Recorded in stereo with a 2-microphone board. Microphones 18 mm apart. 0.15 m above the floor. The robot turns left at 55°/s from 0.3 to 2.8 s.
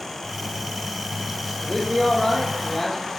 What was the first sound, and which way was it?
A man speaking, 70° left.